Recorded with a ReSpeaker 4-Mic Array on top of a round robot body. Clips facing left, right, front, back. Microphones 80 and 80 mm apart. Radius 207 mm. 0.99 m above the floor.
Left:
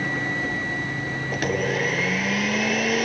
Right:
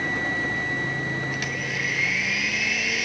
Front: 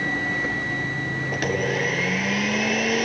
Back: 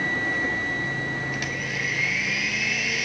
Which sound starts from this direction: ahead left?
A blender, at 1.3 s.